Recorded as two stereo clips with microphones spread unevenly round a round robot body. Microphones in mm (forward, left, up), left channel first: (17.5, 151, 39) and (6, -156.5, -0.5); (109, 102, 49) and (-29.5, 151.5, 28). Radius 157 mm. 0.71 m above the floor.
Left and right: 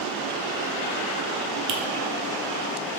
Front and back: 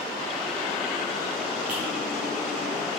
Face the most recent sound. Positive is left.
turn(degrees=-115)